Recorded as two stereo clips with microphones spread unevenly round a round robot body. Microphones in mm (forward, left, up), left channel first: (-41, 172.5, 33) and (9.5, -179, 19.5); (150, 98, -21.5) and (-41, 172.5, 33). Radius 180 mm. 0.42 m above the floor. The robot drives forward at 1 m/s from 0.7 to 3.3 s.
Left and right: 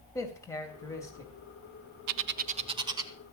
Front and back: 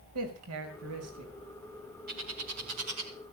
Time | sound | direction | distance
0.1 | a man speaking | straight behind | 3 m
2.1 | a bird | 130° right | 0.5 m